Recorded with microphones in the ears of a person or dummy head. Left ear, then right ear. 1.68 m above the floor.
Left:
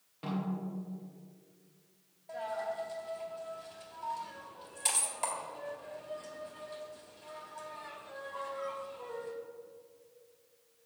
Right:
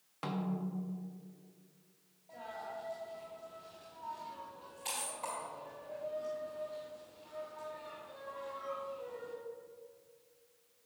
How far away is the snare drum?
About 1.3 m.